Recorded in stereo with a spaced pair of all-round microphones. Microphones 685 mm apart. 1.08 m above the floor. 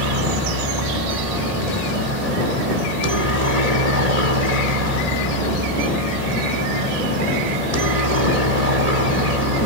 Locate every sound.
0.0 s a helicopter: 65° right (ahead or behind)